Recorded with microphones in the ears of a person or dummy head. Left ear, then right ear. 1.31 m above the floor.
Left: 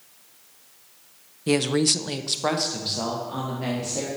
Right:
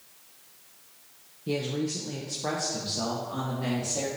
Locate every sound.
1.5 s a woman speaking: 50° left (ahead or behind), 0.6 m; by 4.1 s 10° left (ahead or behind), 1.9 m